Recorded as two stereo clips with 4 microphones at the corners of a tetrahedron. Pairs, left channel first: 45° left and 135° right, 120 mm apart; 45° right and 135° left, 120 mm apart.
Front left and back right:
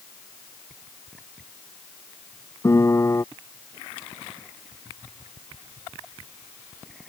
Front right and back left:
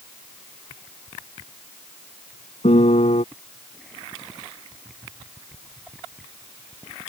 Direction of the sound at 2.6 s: 20° right.